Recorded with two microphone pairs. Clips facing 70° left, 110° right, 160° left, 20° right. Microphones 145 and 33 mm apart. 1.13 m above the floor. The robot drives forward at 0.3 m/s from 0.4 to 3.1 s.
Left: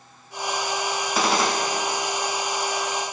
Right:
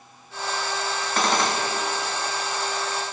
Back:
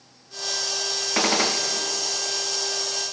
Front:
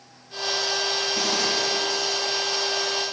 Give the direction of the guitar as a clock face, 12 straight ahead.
I don't hear a guitar.